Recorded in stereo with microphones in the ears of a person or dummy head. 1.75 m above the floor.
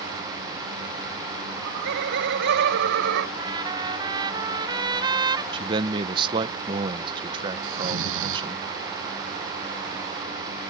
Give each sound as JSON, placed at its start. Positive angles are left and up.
{"t": 1.5, "sound": "laughter", "side_deg": -60}
{"t": 3.4, "sound": "a trumpet", "side_deg": -20}
{"t": 5.5, "sound": "a man speaking", "side_deg": -35}
{"t": 7.6, "sound": "snoring", "side_deg": -85}